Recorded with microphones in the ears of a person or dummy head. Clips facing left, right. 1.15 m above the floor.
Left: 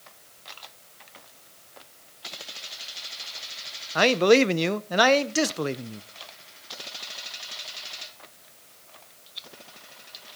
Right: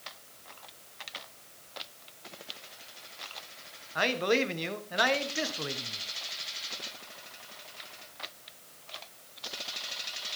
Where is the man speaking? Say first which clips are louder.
Left 10 dB; 55° left (ahead or behind), 0.5 m.